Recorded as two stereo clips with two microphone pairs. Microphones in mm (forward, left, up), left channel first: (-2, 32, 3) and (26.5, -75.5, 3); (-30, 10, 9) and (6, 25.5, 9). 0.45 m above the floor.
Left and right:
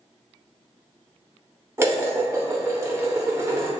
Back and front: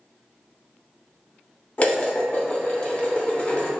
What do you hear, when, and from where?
1.8 s dishes clattering: 130° right, 0.7 m